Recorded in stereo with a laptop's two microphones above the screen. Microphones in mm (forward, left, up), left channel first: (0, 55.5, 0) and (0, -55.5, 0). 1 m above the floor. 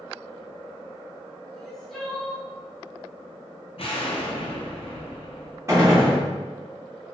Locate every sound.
1.5 s crying: 5° left (ahead or behind), 0.6 m
3.8 s an explosion: 55° left (ahead or behind), 0.6 m
5.7 s a gunshot: 25° right (ahead or behind), 1.1 m